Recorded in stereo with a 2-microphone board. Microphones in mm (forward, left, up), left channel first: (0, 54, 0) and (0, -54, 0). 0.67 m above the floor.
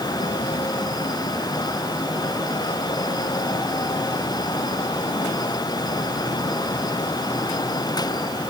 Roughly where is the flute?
No flute in this recording.